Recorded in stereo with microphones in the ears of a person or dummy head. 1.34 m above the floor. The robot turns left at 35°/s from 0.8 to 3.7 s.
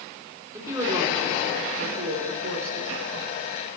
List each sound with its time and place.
0.5 s a woman speaking: 20° right, 3.5 m; by 2.9 s 95° right, 3.5 m